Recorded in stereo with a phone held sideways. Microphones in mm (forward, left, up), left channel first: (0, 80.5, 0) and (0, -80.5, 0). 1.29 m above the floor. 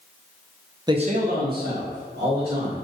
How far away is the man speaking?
About 0.5 m.